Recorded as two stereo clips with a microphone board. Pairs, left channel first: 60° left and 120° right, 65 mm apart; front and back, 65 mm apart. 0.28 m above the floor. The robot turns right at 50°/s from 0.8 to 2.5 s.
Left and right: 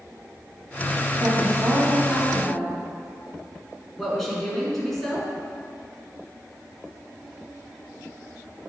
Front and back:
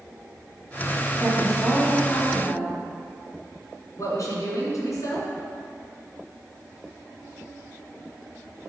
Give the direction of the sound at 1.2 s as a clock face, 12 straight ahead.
3 o'clock.